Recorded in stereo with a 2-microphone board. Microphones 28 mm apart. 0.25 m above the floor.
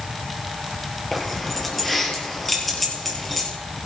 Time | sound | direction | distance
1.1 | keys jangling | 10° left (ahead or behind) | 4 m